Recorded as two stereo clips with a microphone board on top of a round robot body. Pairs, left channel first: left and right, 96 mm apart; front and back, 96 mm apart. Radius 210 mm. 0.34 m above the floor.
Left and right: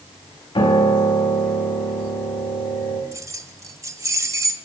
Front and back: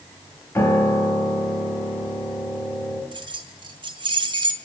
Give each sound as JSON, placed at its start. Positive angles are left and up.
{"t": 0.6, "sound": "a piano", "azimuth_deg": 65, "distance_m": 4.0}
{"t": 3.1, "sound": "keys jangling", "azimuth_deg": -145, "distance_m": 1.7}